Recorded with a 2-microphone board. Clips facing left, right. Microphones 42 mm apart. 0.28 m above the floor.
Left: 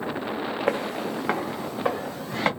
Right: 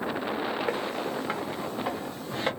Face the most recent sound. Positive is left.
turn(degrees=85)